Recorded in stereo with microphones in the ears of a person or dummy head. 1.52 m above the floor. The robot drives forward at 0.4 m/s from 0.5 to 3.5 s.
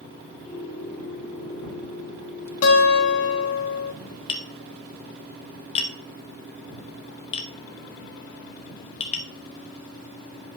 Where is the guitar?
75° left (ahead or behind), 1.6 m; by 3.9 s 85° left, 1.5 m.